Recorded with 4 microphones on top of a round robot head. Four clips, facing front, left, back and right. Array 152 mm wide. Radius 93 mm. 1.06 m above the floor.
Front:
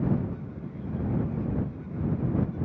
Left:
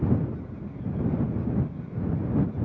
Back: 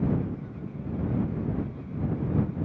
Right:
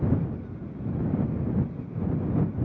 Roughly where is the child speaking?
I don't hear a child speaking.